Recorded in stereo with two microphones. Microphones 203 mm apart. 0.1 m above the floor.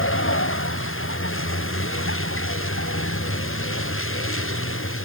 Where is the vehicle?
80° left; by 5.0 s 85° left.